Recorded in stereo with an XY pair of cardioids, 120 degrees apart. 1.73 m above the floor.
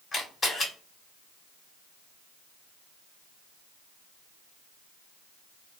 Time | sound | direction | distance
0.1 | a camera shutter | 30° left | 1.0 m